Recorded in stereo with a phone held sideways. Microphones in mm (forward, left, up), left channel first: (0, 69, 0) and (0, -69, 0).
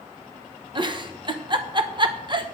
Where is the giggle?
35° right (ahead or behind), 1.0 m.